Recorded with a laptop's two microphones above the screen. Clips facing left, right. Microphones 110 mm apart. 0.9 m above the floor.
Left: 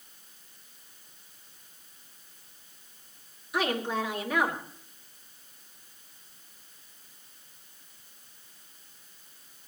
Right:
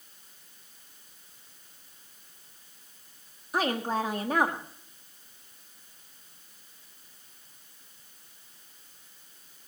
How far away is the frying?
No frying in this recording.